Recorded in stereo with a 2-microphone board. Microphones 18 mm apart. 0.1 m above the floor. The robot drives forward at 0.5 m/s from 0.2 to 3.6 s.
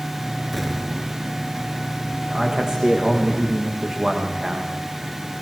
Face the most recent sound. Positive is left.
turn(degrees=-40)  # may be behind; listen again after turning